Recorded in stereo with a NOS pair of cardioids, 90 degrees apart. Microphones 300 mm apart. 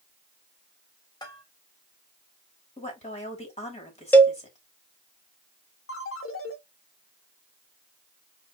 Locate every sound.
1.2 s a bell: 15° left, 2.5 m
2.8 s a woman speaking: 20° left, 2.5 m
4.1 s a cowbell: 5° left, 0.6 m
5.9 s a ringtone: 45° left, 1.2 m